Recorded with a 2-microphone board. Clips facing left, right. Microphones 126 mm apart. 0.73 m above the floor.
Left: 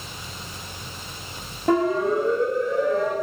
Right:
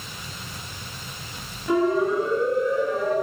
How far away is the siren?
About 6 m.